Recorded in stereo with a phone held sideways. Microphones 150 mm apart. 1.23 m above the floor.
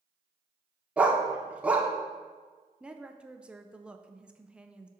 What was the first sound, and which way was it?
A dog barking, 10° right (ahead or behind).